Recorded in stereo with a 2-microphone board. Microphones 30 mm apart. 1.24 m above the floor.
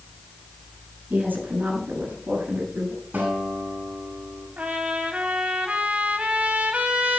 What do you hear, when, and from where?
1.1 s a woman speaking: 90° right, 9 m; by 3.0 s 80° right, 9 m
3.1 s a guitar: 80° right, 9.5 m
4.6 s a trumpet: 50° right (ahead or behind), 3 m